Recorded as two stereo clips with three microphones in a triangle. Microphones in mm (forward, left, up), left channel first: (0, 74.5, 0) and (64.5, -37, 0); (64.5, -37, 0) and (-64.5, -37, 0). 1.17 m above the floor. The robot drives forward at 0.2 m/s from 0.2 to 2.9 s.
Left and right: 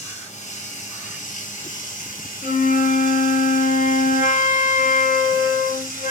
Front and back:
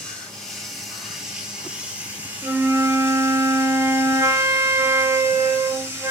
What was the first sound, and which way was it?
Running water, 85° left.